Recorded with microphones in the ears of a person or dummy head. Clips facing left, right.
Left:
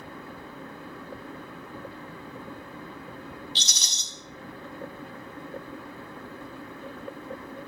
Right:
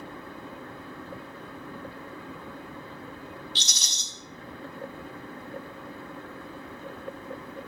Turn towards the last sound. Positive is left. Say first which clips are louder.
# even
turn(degrees=60)  # may be behind; listen again after turning